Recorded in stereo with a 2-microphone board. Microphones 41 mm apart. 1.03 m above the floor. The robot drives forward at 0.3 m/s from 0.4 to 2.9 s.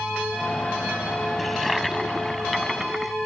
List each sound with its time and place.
1.4 s a toilet flushing: centre (ahead or behind)